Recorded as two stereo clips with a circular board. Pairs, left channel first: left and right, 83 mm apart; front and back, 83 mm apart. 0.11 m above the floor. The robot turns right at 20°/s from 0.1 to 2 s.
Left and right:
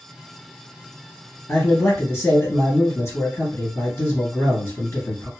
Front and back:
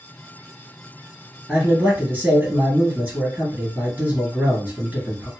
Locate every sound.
1.5 s a man speaking: 115° left, 1.9 m; by 5.3 s 125° left, 1.9 m